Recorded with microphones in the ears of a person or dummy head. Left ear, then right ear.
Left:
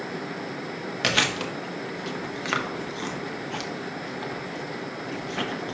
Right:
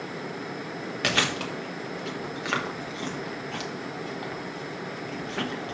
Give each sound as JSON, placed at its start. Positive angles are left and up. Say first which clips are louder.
{"t": 1.0, "sound": "chewing", "louder": "left 2 dB", "side_deg": 5, "distance_m": 0.9}